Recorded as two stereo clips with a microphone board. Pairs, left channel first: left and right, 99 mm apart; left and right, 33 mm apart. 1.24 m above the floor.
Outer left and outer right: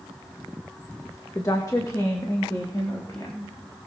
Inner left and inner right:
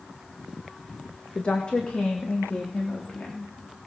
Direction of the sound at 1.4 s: 35° left (ahead or behind).